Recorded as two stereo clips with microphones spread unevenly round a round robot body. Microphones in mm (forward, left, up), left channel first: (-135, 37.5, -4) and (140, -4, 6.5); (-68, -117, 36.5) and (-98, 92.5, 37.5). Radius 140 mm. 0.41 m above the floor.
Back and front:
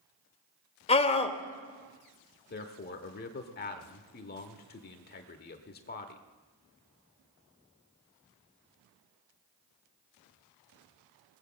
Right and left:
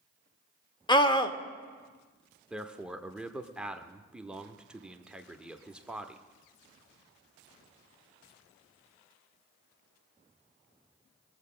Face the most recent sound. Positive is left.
turn(degrees=180)